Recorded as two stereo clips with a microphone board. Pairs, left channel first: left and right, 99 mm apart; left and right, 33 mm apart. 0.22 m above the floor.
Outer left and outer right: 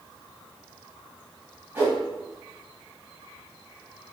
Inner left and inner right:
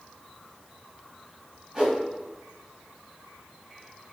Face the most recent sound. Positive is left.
turn(degrees=-20)  # may be behind; listen again after turning